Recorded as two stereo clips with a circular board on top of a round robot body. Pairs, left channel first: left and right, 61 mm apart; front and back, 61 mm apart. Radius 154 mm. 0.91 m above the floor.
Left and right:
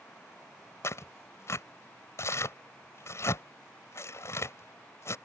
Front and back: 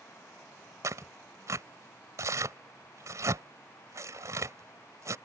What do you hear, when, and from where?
0.8 s tearing paper: 140° left